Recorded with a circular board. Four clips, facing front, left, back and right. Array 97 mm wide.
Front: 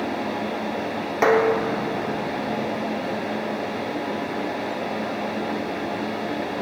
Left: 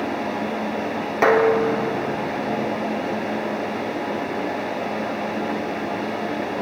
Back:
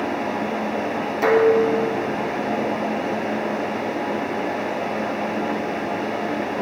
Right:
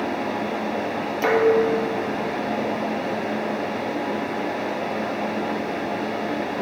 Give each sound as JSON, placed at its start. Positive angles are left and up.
{"t": 1.2, "sound": "dishes clattering", "azimuth_deg": 55, "distance_m": 4.5}